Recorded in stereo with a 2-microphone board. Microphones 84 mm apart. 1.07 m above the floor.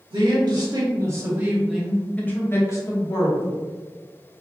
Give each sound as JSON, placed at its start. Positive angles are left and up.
{"t": 0.1, "sound": "a man speaking", "side_deg": -60, "distance_m": 1.2}